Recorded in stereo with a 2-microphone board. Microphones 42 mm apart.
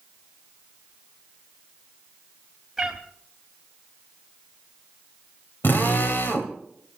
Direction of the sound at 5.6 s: 55° left (ahead or behind).